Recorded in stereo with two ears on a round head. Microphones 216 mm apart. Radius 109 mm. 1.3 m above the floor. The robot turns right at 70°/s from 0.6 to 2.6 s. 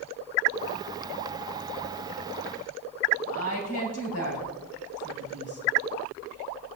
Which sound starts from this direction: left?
A woman speaking, at 3.2 s.